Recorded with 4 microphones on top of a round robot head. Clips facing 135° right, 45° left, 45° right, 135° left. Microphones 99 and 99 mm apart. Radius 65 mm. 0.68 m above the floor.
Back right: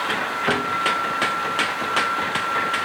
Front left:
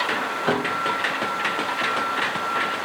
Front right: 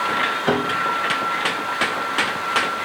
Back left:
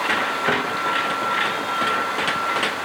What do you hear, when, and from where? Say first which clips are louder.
0.5 s a piano: even, front right 5 dB; 20° right